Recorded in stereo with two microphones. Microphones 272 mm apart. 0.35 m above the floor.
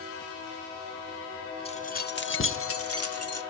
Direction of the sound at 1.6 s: 20° left (ahead or behind).